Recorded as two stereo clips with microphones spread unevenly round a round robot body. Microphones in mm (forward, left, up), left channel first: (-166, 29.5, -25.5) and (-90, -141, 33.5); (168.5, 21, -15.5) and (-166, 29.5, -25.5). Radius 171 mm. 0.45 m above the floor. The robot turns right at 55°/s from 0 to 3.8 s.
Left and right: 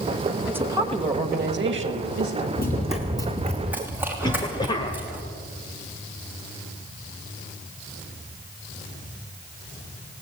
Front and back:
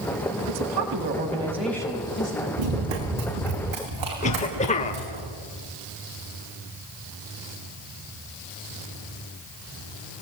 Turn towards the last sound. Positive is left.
turn(degrees=65)